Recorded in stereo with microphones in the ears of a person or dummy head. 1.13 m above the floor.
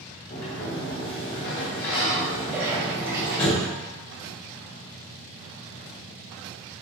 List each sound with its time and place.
0.3 s a sliding door: 55° left (ahead or behind), 1.0 m
2.5 s a splash: 10° right (ahead or behind), 0.7 m